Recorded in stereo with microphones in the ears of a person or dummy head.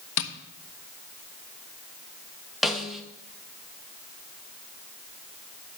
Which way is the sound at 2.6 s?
Centre (ahead or behind).